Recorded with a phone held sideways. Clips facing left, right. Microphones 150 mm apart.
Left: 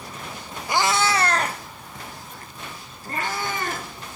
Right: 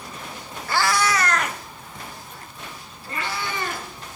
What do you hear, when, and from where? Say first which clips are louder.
0.7 s a cat meowing: even; 15° left (ahead or behind), 0.8 m; by 3.9 s 45° left (ahead or behind), 3 m